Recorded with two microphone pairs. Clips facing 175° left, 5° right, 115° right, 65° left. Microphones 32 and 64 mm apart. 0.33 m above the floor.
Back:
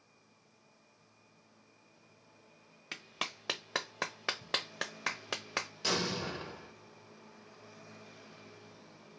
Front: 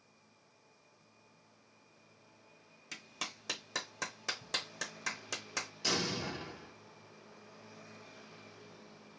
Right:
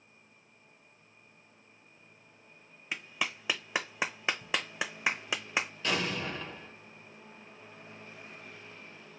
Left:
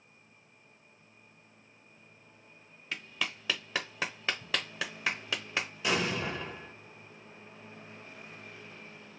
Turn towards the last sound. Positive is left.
turn(degrees=125)